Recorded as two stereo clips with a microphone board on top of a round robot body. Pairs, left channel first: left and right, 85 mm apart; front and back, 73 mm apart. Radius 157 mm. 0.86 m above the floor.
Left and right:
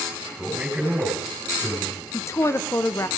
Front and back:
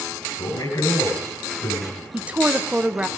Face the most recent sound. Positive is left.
turn(degrees=120)